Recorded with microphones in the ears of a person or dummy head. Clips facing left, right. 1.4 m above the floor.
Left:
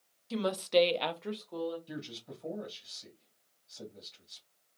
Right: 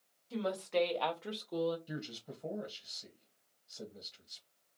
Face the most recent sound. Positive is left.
turn(degrees=-20)  # may be behind; listen again after turning